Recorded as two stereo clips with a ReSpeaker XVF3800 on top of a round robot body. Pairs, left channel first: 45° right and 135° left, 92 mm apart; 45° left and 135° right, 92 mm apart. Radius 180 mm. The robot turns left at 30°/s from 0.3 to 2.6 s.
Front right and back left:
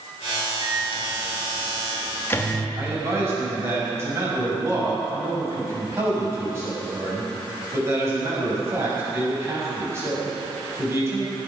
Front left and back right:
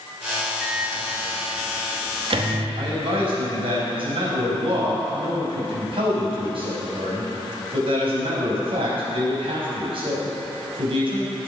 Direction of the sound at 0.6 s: 60° right.